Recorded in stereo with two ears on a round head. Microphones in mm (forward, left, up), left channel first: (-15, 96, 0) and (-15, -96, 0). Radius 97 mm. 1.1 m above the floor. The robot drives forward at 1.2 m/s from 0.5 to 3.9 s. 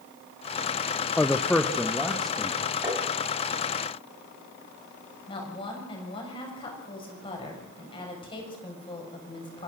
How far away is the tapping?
About 3.5 m.